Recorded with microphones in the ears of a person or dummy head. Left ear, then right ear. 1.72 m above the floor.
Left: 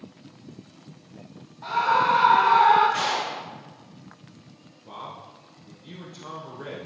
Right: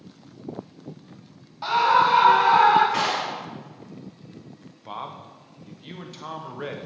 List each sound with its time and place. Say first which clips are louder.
1.6 s a scream: right 3 dB; 45° right (ahead or behind), 0.8 m; by 2.8 s 70° right (ahead or behind), 2 m
2.9 s a clap: right 1 dB; 30° right (ahead or behind), 2.0 m
4.8 s a man speaking: right 4 dB; 25° right (ahead or behind), 0.7 m